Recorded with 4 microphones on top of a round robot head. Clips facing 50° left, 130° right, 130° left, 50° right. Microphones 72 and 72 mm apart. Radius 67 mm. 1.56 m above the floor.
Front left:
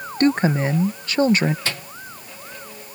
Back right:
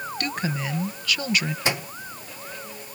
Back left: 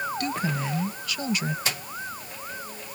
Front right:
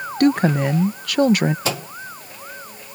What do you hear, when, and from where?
0.2 s a woman speaking: 10° right
1.6 s a microwave: 55° right